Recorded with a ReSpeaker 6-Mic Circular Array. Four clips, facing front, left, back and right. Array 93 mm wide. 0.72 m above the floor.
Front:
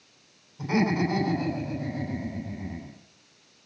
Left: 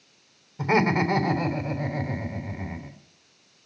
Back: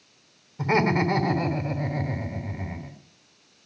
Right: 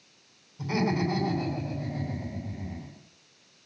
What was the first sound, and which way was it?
Laughter, 120° left.